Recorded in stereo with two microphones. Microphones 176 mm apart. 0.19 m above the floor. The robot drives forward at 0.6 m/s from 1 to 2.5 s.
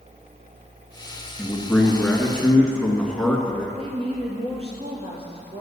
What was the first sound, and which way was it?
A man speaking, 5° left (ahead or behind).